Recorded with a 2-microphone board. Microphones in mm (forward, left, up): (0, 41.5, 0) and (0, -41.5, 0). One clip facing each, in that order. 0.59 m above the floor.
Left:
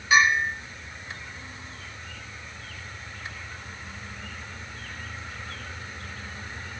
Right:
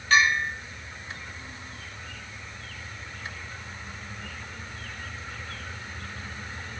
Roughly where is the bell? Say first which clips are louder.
Left 2 dB; centre.